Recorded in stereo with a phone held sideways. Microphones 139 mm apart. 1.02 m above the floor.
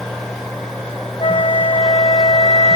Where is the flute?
50° left (ahead or behind).